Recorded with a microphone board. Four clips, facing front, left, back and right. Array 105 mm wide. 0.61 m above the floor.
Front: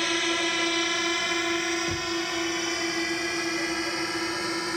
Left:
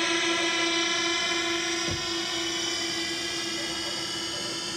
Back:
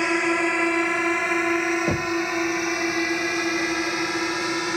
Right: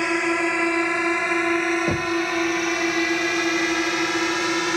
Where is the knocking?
140° right.